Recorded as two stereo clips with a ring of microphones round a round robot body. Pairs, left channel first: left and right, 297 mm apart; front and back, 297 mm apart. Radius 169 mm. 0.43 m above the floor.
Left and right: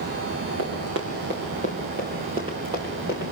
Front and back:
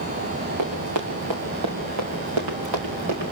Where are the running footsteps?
145° right, 3 m; by 3.3 s 170° right, 3.5 m.